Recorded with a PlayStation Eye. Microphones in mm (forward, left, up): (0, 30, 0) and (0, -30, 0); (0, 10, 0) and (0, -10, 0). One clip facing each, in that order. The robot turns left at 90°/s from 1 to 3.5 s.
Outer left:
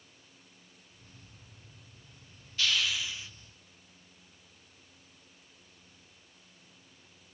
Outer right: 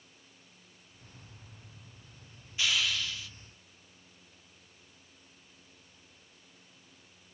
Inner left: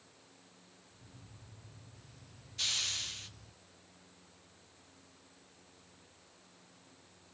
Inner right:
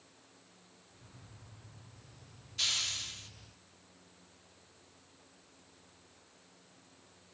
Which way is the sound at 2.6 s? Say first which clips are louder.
Even, inner right 1 dB; 155° right.